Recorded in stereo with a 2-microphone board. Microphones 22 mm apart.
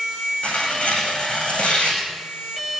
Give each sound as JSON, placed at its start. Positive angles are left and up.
{"t": 0.4, "sound": "tearing paper", "side_deg": 65, "distance_m": 9.0}